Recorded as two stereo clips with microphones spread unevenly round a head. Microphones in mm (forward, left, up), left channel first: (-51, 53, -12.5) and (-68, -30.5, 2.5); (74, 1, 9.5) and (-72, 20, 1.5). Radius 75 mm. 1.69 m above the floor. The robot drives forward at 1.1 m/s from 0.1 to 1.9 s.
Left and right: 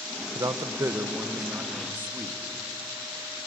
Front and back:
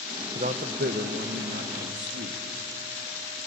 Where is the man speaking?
135° right, 1.0 m; by 2.4 s 165° right, 2.5 m.